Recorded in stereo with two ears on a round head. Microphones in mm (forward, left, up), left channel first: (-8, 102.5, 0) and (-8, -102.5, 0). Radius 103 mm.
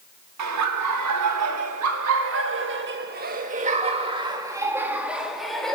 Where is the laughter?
80° right, 2.5 m; by 5.8 s 5° left (ahead or behind), 2 m.